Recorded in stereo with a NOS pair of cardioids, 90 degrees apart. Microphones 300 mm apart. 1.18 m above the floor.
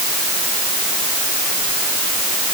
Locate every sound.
Only background noise.